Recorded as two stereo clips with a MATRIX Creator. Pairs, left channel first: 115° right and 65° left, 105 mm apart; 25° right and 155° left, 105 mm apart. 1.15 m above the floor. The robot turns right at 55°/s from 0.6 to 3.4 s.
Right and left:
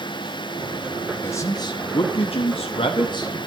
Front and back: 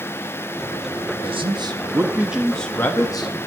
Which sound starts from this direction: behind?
A man speaking, at 1.2 s.